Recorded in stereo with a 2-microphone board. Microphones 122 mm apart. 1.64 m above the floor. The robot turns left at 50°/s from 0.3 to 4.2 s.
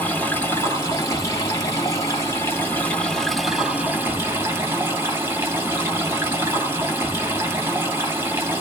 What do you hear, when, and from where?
0.0 s running water: 15° left (ahead or behind), 1.5 m; by 8.6 s 20° right (ahead or behind), 1.5 m